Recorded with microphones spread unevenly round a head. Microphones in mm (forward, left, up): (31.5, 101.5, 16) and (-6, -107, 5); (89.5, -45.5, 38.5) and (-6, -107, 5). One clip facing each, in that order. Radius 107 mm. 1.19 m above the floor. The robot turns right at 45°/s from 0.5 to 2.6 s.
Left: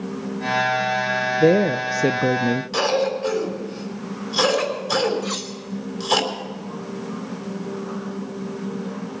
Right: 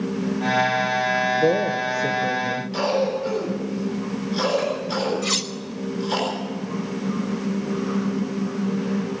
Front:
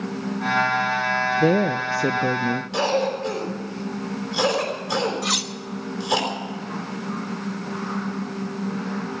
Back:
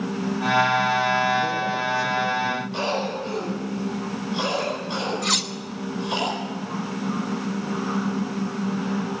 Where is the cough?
60° left, 3.5 m.